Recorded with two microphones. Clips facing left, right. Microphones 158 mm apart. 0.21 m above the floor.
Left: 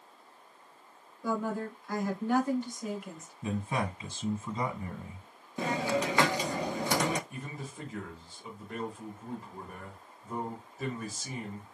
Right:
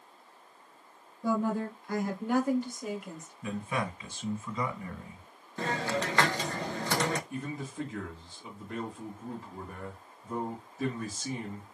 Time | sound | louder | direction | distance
1.2 | a woman speaking | right 3 dB | 30° right (ahead or behind) | 2 m
3.4 | a man speaking | left 1 dB | 30° left (ahead or behind) | 1.6 m
5.6 | a hiss | left 2 dB | 15° left (ahead or behind) | 0.5 m
7.3 | a man speaking | right 5 dB | 5° left (ahead or behind) | 1.6 m